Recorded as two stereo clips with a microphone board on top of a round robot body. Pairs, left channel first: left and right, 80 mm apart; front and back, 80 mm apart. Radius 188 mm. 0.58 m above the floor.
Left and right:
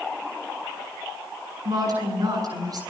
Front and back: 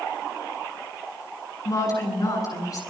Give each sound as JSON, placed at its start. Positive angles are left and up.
{"t": 1.6, "sound": "a woman speaking", "azimuth_deg": -45, "distance_m": 10.0}